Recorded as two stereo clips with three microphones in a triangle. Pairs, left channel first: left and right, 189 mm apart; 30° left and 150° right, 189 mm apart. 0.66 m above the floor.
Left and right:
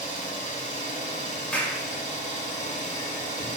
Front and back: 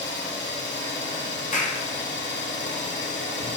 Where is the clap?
10° left, 0.9 m.